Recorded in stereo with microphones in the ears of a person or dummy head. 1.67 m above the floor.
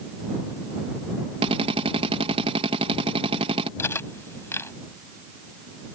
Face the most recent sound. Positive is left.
turn(degrees=10)  # may be behind; listen again after turning